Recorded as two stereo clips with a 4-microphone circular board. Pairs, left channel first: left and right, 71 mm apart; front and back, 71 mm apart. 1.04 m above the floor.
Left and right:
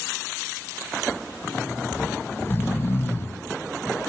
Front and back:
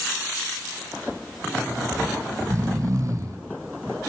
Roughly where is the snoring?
Behind left.